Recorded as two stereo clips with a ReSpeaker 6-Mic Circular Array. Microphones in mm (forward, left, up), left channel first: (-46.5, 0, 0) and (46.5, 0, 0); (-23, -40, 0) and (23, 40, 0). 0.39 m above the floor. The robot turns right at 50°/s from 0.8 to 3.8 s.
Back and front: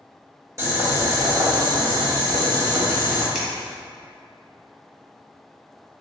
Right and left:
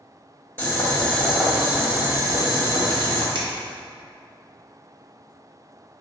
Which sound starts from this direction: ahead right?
Boiling, at 0.6 s.